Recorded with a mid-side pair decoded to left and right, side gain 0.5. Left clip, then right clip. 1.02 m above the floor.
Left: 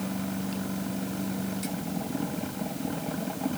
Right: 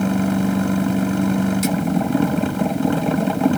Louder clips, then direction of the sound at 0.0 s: Right 13 dB; 70° right.